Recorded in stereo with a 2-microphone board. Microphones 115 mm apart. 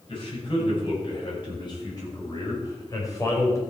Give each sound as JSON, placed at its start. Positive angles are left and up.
{"t": 0.1, "sound": "a man speaking", "side_deg": 45, "distance_m": 6.5}